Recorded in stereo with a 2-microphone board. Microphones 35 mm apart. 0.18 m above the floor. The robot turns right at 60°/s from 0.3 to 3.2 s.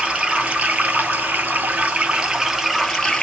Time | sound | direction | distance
0.0 | running water | 145° right | 1.1 m